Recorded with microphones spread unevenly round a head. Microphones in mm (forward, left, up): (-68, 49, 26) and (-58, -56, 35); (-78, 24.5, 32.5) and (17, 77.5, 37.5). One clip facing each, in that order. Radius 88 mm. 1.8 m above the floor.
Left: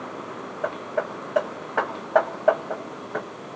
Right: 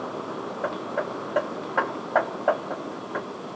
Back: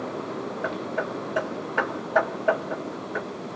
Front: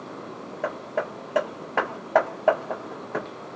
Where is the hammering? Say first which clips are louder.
Left 2 dB, front 2 dB; 10° left, 1.2 m.